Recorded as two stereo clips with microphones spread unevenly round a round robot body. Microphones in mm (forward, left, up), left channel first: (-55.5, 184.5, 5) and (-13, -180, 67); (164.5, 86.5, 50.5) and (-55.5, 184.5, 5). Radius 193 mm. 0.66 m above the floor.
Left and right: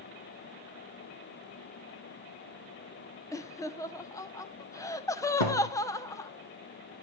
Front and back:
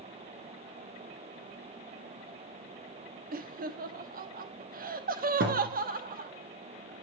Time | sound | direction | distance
3.3 | laughter | 165° left | 0.8 m
5.4 | a thud | 110° left | 5 m